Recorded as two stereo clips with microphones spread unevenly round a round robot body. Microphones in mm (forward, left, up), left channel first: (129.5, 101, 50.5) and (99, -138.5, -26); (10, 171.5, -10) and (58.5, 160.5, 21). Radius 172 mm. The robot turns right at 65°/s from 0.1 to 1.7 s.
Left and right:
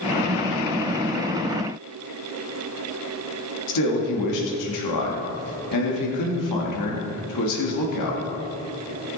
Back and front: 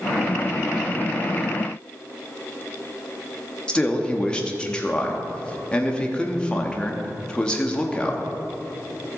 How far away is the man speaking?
About 1.6 m.